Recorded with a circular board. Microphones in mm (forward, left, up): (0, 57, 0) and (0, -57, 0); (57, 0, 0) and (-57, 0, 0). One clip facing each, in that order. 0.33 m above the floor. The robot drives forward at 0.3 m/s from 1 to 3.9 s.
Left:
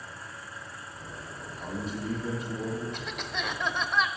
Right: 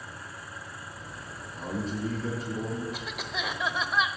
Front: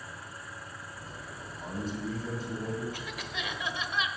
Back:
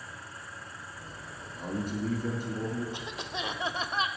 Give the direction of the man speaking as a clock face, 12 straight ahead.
5 o'clock.